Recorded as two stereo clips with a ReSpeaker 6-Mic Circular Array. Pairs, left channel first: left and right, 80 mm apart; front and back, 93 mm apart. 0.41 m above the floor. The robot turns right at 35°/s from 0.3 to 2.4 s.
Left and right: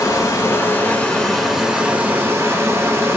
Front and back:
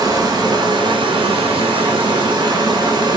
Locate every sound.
0.0 s running water: 140° left, 0.8 m; by 3.2 s 145° right, 0.8 m